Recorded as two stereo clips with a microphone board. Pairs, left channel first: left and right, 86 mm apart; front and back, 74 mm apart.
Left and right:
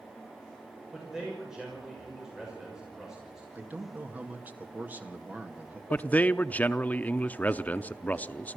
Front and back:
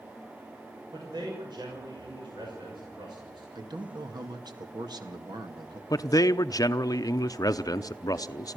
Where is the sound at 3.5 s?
160° right, 2 m.